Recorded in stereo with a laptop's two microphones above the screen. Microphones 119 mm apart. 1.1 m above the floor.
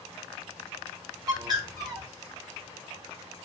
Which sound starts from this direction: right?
A bird, at 1.3 s.